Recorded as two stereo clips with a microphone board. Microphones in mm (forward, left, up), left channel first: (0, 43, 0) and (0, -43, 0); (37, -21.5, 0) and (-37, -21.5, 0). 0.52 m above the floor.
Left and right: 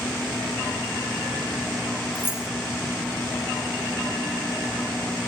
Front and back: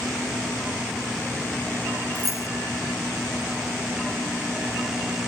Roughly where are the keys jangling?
Behind left.